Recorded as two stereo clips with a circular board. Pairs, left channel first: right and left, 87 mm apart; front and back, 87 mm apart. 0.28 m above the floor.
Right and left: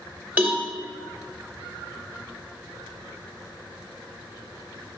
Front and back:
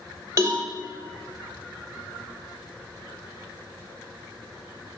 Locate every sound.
0.4 s a cowbell: 150° left, 0.8 m